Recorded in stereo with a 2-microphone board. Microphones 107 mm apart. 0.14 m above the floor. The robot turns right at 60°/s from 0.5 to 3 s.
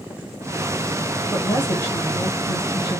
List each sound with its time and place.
1.3 s a woman speaking: 5° right, 1.9 m; by 3.0 s 100° left, 1.9 m